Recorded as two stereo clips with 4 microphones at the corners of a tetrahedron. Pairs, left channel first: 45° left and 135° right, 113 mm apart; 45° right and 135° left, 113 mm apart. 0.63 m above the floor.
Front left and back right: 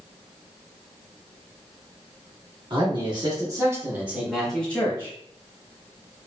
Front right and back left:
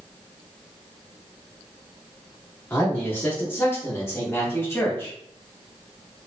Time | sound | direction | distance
2.7 | a man speaking | 110° right | 1.3 m